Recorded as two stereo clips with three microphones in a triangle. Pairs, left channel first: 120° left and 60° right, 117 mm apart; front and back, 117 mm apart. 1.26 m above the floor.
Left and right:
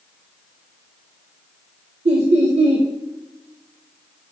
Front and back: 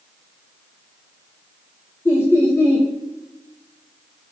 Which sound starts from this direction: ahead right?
Laughter, at 2.0 s.